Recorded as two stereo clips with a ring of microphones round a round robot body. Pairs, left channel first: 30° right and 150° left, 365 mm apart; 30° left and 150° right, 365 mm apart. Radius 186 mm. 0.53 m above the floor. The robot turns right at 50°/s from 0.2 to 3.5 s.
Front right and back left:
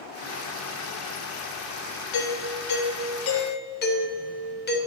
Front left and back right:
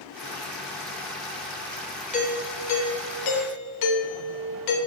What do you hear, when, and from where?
2.1 s a doorbell: 40° right, 3 m; by 4.8 s 30° left, 3 m